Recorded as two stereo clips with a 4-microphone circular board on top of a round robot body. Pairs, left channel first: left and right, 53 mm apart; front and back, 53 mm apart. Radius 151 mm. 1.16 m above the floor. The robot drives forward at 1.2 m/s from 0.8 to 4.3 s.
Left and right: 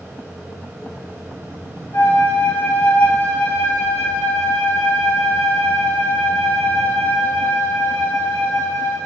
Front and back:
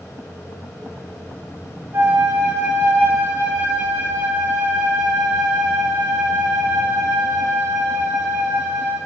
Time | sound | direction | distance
1.9 | a flute | 135° left | 2.5 m